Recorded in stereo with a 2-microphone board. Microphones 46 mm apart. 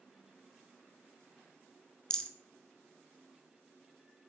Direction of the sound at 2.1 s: 15° left (ahead or behind).